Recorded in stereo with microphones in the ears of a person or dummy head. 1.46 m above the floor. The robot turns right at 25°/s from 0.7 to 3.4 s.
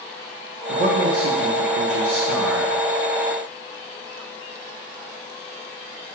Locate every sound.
0.7 s a man speaking: 140° right, 0.8 m; by 2.8 s 85° right, 0.8 m